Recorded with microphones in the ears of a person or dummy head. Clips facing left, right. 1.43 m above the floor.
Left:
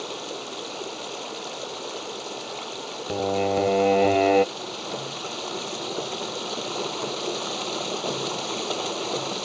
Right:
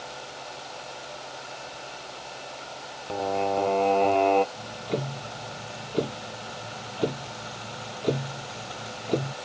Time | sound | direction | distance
0.0 | running water | 85° left | ?
3.1 | singing | 20° left (ahead or behind) | ?
4.5 | ticking | 40° right (ahead or behind) | ?